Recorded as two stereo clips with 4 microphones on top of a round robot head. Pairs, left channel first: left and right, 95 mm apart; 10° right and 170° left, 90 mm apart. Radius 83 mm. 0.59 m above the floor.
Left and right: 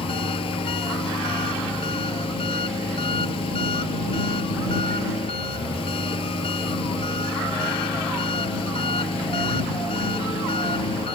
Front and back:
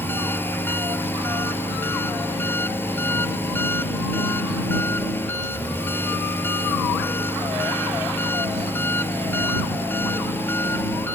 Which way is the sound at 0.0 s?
55° left.